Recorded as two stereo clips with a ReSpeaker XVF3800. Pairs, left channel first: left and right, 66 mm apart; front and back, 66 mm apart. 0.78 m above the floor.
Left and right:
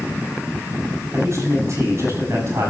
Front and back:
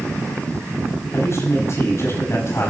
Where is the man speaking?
45° right, 6.5 m.